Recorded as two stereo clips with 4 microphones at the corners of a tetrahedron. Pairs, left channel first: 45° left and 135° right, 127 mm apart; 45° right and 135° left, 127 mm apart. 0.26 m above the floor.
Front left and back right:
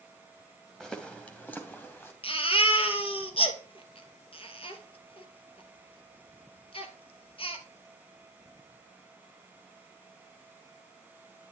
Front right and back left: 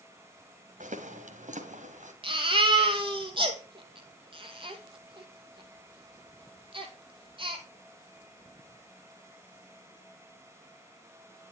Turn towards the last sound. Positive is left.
turn(degrees=90)